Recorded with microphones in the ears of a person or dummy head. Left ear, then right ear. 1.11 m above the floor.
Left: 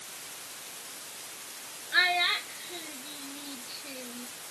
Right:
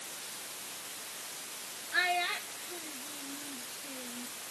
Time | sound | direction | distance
1.9 | a child speaking | 30° left (ahead or behind) | ?